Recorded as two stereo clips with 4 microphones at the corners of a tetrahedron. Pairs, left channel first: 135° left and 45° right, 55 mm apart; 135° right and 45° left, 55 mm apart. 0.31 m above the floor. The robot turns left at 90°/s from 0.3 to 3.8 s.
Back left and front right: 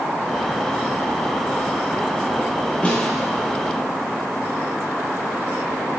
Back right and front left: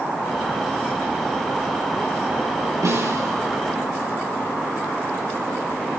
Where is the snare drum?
70° left, 9 m; by 3.4 s 15° left, 9 m.